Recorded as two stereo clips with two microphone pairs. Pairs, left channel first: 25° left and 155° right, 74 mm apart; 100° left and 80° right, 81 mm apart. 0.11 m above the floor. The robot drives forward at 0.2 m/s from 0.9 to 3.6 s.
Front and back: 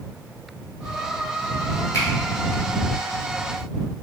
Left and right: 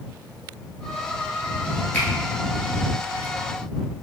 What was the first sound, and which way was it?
A finger snap, 50° left.